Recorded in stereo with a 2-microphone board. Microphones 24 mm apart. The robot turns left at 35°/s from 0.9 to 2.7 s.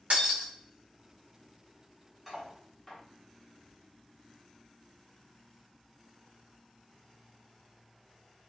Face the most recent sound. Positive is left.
turn(degrees=15)  # may be behind; listen again after turning